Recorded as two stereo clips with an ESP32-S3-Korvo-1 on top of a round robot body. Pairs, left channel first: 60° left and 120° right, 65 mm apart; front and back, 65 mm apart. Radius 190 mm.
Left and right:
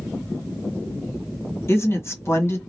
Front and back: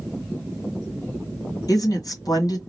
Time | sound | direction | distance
1.7 | a woman speaking | 15° left | 1.5 m